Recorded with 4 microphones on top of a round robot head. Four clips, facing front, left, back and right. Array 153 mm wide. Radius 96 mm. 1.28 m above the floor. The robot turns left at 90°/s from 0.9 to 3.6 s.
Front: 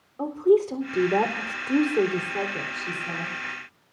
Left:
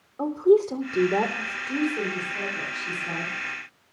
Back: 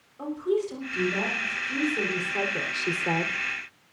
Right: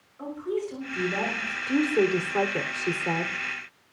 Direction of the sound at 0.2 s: 55° left.